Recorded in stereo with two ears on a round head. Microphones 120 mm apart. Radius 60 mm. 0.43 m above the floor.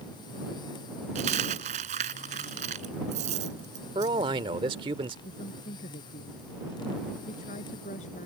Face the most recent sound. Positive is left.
turn(degrees=60)  # may be behind; listen again after turning